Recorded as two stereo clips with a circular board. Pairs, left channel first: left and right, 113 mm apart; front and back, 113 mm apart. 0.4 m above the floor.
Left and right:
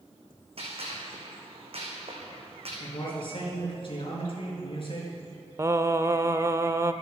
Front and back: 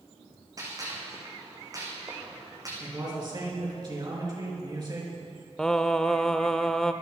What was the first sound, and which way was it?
A gunshot, 120° right.